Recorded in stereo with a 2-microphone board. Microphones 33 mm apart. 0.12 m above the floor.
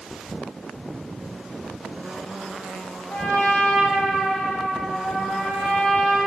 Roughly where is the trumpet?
Left.